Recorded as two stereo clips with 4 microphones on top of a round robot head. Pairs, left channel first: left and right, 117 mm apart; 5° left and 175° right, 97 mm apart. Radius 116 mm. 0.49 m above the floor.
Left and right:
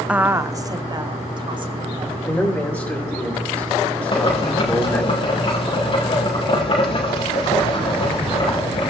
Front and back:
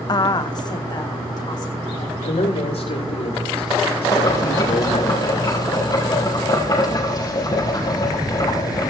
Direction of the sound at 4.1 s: 50° left.